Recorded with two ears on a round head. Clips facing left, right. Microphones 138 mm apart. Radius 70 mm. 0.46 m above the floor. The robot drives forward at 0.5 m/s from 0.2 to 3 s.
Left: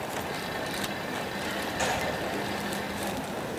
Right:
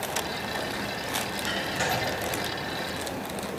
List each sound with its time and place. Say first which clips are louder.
1.8 s a gunshot: right 1 dB; 5° left (ahead or behind), 6.5 m